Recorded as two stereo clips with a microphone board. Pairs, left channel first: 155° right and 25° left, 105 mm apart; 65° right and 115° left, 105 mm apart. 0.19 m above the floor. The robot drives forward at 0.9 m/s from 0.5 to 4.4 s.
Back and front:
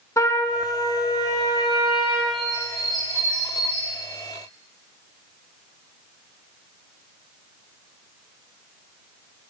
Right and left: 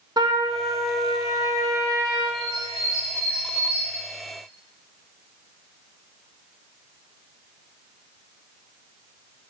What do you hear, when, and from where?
0.2 s a trumpet: 150° left, 1.5 m; by 2.2 s 165° left, 3 m
2.3 s a bird: 65° left, 4 m; by 4.0 s 90° left, 3.5 m